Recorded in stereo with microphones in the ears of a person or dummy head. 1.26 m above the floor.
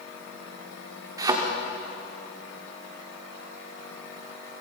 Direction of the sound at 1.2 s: 20° right (ahead or behind).